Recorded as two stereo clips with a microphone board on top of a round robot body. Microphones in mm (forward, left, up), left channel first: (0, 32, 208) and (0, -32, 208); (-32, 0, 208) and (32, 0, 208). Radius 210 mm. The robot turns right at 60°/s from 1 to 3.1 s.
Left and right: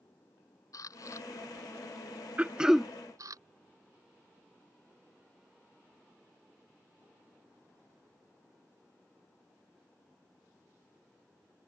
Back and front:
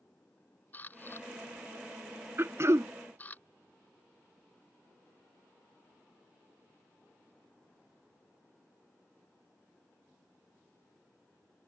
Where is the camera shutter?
120° left; by 3.4 s 115° right.